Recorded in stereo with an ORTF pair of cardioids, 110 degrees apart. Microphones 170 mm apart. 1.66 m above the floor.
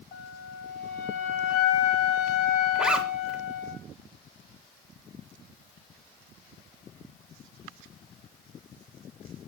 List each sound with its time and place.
0.1 s a flute: 70° left, 4.5 m
2.8 s a zipper: 5° right, 3 m